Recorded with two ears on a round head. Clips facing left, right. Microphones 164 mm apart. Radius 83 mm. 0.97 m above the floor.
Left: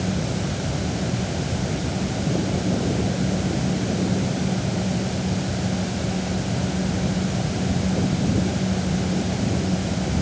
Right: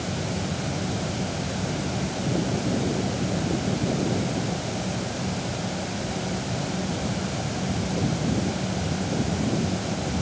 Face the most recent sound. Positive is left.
No sound to turn to.